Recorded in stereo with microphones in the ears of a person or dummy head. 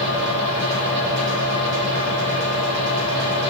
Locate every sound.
0.0 s a fan: 60° right (ahead or behind), 2 m